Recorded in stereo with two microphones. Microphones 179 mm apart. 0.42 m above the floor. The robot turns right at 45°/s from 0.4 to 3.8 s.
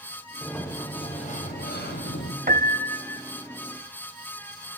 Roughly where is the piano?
Behind right.